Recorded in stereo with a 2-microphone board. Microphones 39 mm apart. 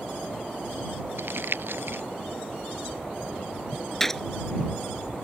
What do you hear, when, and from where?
1.2 s crumpling: 65° right (ahead or behind)
4.0 s a gunshot: 10° left (ahead or behind)